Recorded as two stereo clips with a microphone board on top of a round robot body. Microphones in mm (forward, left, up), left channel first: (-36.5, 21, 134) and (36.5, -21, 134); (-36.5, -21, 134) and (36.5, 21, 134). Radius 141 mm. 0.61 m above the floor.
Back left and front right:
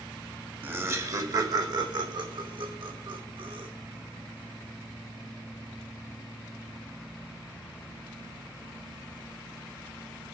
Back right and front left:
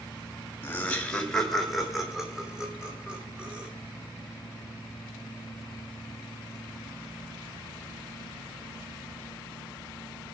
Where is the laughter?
90° right, 1.8 m; by 3.7 s 45° right, 4.5 m.